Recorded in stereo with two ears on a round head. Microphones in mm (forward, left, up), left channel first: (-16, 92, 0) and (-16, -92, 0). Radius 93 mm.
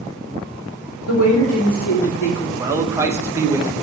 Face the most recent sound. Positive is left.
turn(degrees=-15)  # may be behind; listen again after turning